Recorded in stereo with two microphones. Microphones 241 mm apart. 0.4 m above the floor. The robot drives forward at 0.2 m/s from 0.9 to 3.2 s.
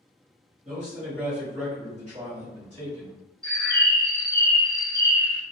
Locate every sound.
0.7 s a man speaking: 30° right (ahead or behind), 1.5 m; by 3.1 s 25° right (ahead or behind), 1.7 m
3.4 s a bird: 20° left (ahead or behind), 1.0 m